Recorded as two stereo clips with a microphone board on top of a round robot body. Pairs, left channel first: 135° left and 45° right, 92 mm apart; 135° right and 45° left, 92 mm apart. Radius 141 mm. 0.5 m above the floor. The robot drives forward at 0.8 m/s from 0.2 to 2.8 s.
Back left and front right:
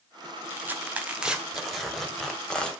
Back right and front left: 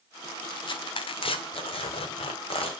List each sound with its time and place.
0.5 s tearing paper: 110° right, 2 m; by 2.7 s 145° right, 3 m